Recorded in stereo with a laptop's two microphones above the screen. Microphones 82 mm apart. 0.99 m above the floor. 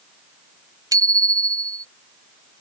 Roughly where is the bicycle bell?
Right.